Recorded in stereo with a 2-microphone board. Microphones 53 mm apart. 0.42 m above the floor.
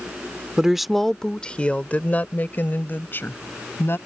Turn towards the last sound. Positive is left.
turn(degrees=45)  # may be behind; listen again after turning